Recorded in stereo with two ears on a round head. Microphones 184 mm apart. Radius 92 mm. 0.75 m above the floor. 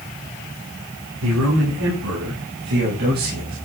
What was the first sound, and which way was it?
A man speaking, 75° right (ahead or behind).